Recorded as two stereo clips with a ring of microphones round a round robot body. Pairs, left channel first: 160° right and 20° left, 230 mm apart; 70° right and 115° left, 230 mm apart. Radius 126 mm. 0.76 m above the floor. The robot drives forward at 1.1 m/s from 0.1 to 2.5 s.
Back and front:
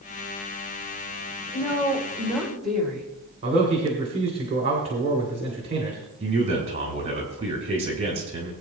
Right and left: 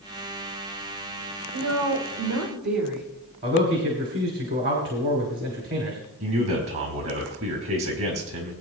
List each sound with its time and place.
1.5 s a woman speaking: 100° left, 4 m; by 3.0 s 115° left, 4.5 m
3.4 s a man speaking: 85° left, 2.5 m
6.2 s a man speaking: 90° left, 5 m